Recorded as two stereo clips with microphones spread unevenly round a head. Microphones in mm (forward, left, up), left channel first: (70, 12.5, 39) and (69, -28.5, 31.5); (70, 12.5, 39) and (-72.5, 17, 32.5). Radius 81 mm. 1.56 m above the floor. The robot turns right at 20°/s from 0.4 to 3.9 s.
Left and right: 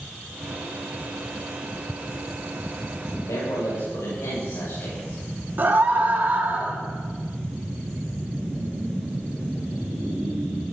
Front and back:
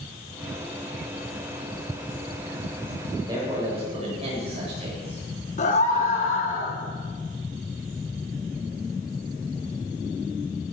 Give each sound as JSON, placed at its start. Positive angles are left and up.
{"t": 3.1, "sound": "a man speaking", "azimuth_deg": 110, "distance_m": 8.0}
{"t": 5.6, "sound": "a scream", "azimuth_deg": -50, "distance_m": 4.5}